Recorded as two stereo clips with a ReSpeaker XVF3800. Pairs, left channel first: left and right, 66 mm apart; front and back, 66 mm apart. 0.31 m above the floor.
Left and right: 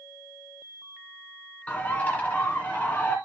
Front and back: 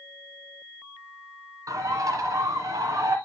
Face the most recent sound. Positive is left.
turn(degrees=155)